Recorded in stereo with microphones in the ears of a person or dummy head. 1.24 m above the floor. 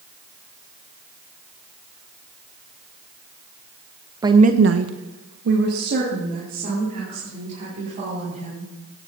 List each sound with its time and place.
4.2 s a woman speaking: 15° right (ahead or behind), 0.8 m; by 8.7 s 50° right (ahead or behind), 6 m